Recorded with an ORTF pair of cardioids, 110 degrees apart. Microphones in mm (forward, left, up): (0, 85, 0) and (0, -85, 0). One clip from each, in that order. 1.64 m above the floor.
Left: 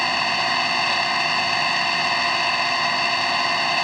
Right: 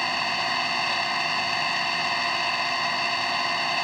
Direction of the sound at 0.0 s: 30° left.